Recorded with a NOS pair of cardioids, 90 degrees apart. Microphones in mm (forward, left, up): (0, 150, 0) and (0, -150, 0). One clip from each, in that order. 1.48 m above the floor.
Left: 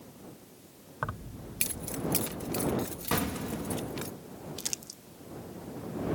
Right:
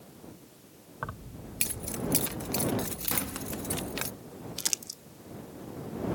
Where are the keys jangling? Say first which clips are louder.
Left 3 dB; 15° left; by 4.1 s 55° right.